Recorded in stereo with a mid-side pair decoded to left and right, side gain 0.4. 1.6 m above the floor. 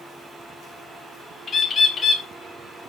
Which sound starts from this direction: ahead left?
A bird, at 1.5 s.